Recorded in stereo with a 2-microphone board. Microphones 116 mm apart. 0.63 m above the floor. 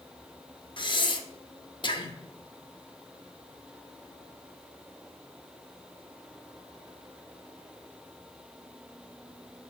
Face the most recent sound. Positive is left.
turn(degrees=45)  # may be behind; listen again after turning